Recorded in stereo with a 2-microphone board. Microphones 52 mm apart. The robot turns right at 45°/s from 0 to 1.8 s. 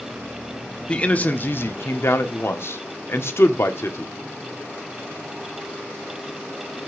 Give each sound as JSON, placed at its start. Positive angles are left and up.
{"t": 0.9, "sound": "a man speaking", "azimuth_deg": 20, "distance_m": 1.2}